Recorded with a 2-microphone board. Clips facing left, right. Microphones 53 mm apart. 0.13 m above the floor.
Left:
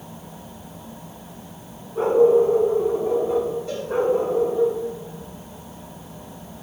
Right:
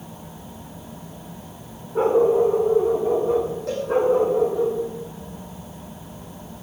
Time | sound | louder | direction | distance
1.9 | a dog barking | left 2 dB | 55° right (ahead or behind) | 7 m
3.7 | a cowbell | right 3 dB | 75° right (ahead or behind) | 7.5 m